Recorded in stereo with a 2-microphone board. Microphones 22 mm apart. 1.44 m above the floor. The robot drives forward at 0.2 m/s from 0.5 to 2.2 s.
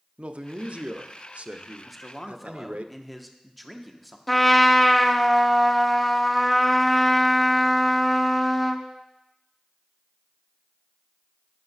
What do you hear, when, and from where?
0.2 s a man speaking: 65° right (ahead or behind), 0.5 m; by 2.9 s 75° right (ahead or behind), 0.5 m
1.9 s a man speaking: 5° left (ahead or behind), 0.7 m
4.3 s a trumpet: 10° left (ahead or behind), 0.5 m